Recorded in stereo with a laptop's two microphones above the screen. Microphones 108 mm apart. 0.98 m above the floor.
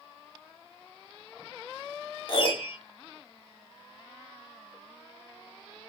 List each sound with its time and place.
2.3 s a piano: 50° left (ahead or behind), 0.7 m